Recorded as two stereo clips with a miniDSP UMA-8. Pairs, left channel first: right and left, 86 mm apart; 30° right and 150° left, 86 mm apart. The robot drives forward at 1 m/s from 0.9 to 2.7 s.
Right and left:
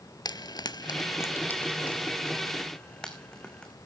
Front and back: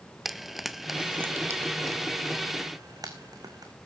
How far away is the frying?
About 0.5 m.